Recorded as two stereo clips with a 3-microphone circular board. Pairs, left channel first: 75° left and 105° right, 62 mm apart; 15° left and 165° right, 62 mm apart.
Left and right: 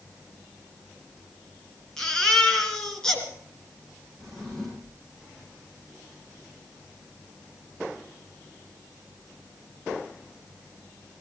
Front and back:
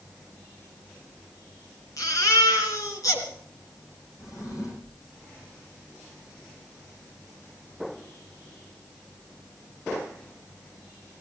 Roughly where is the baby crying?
Ahead.